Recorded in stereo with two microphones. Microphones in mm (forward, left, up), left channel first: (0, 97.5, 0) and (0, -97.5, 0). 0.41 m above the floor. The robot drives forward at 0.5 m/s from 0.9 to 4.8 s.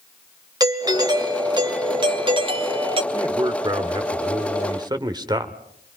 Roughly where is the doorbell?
Right.